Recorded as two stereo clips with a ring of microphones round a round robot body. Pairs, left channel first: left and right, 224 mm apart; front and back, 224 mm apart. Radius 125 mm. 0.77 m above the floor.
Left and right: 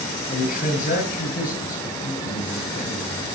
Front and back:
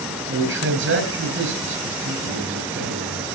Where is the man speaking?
150° left, 6 m.